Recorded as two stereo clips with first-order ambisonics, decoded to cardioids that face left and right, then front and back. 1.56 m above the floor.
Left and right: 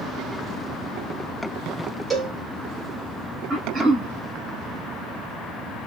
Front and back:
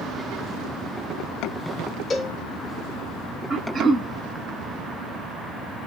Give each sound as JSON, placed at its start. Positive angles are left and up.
{"t": 2.1, "sound": "a cowbell", "azimuth_deg": -10, "distance_m": 1.2}
{"t": 3.5, "sound": "throat clearing", "azimuth_deg": -125, "distance_m": 1.1}